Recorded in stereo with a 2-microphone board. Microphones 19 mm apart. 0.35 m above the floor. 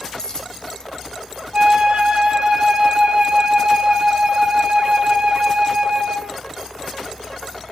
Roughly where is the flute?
Right.